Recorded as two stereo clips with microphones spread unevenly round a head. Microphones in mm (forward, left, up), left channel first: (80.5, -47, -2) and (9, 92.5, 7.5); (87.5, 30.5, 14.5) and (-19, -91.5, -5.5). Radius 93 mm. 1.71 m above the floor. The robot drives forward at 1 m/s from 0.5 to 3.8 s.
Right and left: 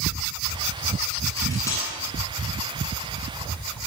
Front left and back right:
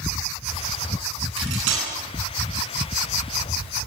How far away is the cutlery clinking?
About 9.5 m.